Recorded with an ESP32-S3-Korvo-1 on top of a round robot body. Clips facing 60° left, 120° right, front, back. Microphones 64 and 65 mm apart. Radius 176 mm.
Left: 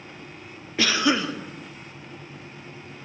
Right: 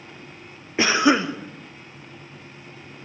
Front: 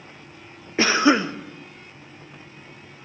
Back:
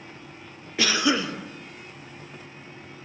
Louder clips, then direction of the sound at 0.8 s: Right 4 dB, front 6 dB; 55° right.